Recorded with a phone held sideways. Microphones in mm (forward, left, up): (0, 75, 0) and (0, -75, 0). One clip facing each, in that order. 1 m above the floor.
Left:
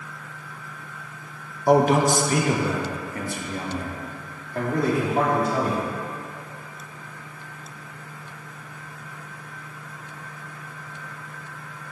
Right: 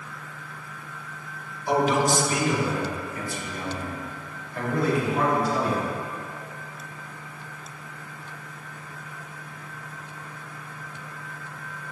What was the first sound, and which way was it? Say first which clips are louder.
A man speaking: left 5 dB; 45° left (ahead or behind).